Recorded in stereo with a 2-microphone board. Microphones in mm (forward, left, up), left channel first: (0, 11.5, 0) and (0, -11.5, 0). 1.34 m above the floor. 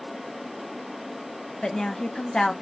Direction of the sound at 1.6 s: 30° left (ahead or behind).